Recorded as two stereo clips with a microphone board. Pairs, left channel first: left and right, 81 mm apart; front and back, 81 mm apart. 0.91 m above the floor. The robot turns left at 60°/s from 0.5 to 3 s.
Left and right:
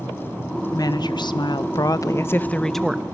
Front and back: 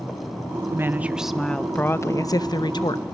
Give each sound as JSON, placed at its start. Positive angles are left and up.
{"t": 0.7, "sound": "a woman speaking", "azimuth_deg": 130, "distance_m": 0.5}